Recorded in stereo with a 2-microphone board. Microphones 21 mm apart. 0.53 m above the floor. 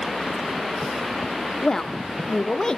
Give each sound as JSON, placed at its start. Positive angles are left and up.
{"t": 1.6, "sound": "a woman speaking", "side_deg": 25, "distance_m": 0.7}